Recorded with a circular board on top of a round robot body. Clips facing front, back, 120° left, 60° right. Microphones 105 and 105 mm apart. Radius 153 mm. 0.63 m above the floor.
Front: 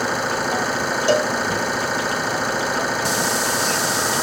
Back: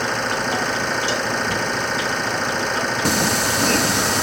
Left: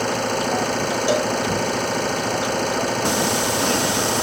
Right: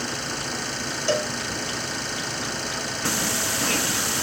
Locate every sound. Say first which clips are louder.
0.0 s an engine running: front 1 dB, left 10 dB; 80° left
1.1 s a cowbell: front 5 dB, left 3 dB; 40° left
3.0 s singing: back 1 dB, left 7 dB; 175° right